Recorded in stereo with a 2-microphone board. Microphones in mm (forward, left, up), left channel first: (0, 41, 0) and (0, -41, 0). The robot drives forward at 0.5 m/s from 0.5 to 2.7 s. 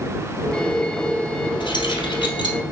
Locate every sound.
1.6 s keys jangling: 70° left (ahead or behind), 3 m; by 2.6 s 75° left (ahead or behind), 3 m